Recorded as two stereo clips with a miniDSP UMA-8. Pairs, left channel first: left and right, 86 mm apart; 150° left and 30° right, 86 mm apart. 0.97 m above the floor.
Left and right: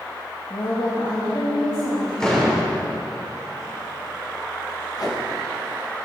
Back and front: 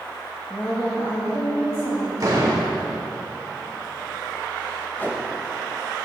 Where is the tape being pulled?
90° left, 1.3 m.